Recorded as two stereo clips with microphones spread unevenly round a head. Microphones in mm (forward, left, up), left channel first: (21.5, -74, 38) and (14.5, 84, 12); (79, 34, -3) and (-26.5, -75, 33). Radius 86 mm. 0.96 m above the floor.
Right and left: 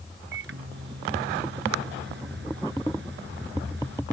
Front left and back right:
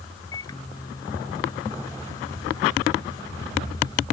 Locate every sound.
0.3 s a microwave: 120° left